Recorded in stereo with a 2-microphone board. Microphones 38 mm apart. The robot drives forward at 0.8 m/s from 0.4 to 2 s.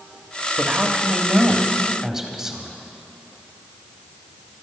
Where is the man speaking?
25° right (ahead or behind), 1.1 m; by 2.8 s 15° right (ahead or behind), 1.6 m.